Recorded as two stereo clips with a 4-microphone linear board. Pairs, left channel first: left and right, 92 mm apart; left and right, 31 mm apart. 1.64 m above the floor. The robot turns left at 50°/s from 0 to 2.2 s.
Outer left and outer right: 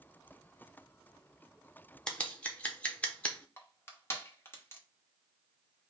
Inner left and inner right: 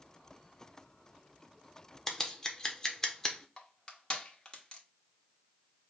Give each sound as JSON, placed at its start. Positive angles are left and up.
{"t": 2.1, "sound": "scissors", "side_deg": 10, "distance_m": 0.9}
{"t": 3.6, "sound": "crushing", "side_deg": 25, "distance_m": 1.1}